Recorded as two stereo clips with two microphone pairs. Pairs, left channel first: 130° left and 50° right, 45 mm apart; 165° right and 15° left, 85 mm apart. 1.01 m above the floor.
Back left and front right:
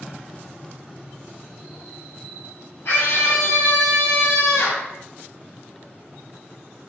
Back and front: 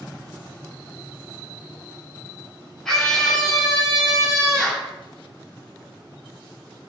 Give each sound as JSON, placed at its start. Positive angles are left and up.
{"t": 2.9, "sound": "a scream", "azimuth_deg": 110, "distance_m": 4.5}